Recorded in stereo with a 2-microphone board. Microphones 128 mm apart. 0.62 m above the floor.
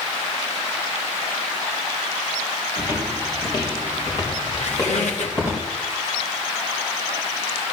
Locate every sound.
2.8 s footsteps: 30° left (ahead or behind), 4 m; by 5.5 s 25° left (ahead or behind), 5.5 m
4.5 s a squeak: 60° left (ahead or behind), 1.8 m